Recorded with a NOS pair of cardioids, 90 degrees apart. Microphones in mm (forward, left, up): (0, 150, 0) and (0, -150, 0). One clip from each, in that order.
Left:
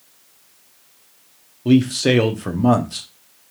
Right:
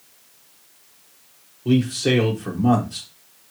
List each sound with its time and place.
1.6 s a man speaking: 35° left, 0.9 m